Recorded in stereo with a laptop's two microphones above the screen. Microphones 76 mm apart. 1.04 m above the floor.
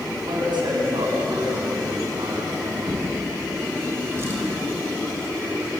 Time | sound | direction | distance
0.2 | a man speaking | 80° right | 7 m
2.9 | a drawer | 35° right (ahead or behind) | 4.5 m